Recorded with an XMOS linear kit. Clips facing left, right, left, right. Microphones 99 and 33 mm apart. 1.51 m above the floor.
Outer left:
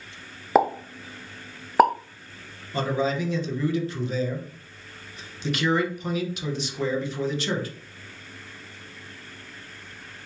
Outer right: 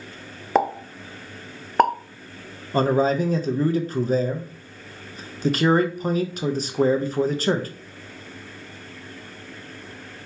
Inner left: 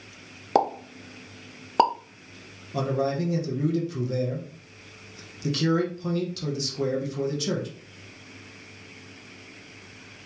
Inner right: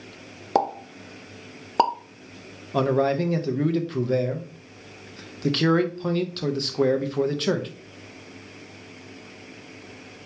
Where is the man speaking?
40° right (ahead or behind), 0.7 m.